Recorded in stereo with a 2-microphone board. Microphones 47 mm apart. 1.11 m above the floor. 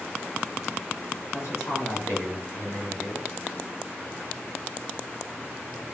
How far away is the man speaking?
About 1.7 m.